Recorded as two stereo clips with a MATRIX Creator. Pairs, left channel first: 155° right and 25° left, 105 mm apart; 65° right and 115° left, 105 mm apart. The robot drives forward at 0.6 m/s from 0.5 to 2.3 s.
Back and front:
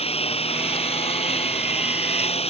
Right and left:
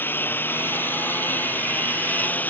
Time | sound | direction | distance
0.0 | a lawn mower | 140° right | ?